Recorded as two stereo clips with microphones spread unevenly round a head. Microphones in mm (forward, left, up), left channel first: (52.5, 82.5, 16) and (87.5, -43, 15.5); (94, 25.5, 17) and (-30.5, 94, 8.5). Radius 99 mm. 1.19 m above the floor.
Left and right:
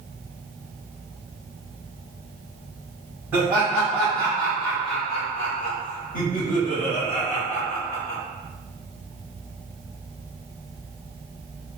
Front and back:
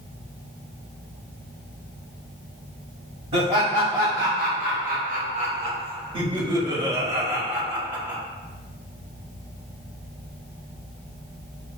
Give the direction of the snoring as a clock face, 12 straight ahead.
No snoring in this recording.